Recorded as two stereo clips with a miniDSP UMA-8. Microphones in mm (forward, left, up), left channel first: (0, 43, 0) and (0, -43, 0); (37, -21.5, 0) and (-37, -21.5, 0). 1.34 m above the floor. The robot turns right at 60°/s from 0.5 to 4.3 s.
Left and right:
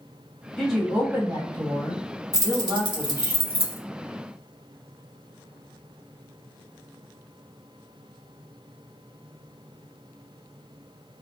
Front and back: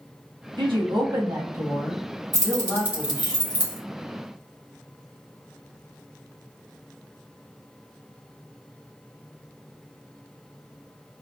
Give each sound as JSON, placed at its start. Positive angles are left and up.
{"t": 0.6, "sound": "a woman speaking", "azimuth_deg": 170, "distance_m": 1.5}
{"t": 2.3, "sound": "keys jangling", "azimuth_deg": -145, "distance_m": 1.3}